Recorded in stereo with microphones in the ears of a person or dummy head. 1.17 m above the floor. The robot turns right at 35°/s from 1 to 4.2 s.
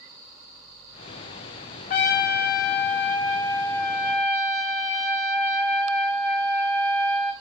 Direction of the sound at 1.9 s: 90° left.